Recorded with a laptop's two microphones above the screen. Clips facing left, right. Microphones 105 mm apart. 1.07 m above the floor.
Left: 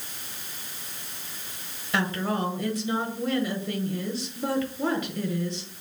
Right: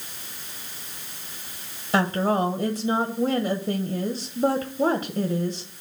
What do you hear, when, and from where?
1.9 s a woman speaking: 35° right (ahead or behind), 0.8 m